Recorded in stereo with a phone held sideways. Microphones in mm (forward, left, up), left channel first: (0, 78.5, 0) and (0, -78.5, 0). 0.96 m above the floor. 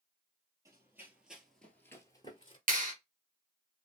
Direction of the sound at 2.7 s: 55° right (ahead or behind).